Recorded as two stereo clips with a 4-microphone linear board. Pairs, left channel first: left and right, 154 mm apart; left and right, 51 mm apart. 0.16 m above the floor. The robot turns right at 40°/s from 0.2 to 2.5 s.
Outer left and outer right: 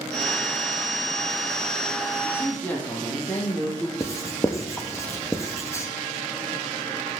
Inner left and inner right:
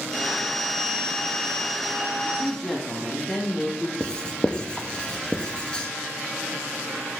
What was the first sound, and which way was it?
A woman speaking, 15° left (ahead or behind).